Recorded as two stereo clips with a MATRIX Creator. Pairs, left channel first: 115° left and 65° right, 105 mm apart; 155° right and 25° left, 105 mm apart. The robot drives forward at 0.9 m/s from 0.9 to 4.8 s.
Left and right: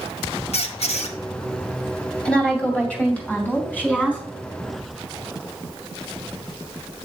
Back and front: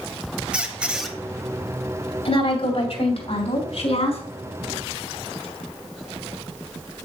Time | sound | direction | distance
0.5 | a squeak | 105° left | 0.8 m
2.2 | a woman speaking | 170° right | 2.5 m